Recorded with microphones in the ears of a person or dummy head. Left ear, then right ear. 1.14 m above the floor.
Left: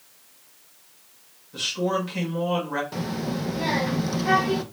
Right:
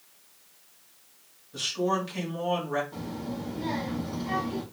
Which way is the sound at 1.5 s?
Centre (ahead or behind).